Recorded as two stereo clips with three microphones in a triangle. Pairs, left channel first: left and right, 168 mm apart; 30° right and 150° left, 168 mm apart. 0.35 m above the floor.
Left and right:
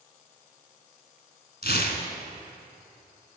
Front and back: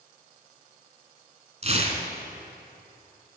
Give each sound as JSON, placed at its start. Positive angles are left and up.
{"t": 1.6, "sound": "tearing paper", "azimuth_deg": 105, "distance_m": 1.5}